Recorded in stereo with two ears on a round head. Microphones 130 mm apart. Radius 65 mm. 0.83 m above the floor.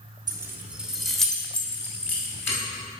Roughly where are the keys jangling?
Right.